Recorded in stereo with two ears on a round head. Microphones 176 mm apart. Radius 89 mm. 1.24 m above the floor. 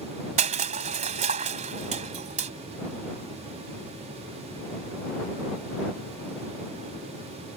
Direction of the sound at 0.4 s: 35° right (ahead or behind).